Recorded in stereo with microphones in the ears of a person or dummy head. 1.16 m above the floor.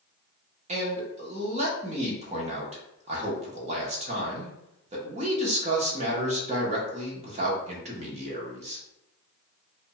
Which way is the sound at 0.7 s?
35° right (ahead or behind).